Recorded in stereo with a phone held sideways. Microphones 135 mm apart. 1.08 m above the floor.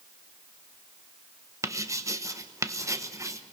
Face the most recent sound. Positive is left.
turn(degrees=-25)  # may be behind; listen again after turning